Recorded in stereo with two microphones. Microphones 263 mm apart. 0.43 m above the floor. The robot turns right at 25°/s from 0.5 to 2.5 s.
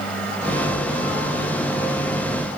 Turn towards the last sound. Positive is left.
No sound to turn to.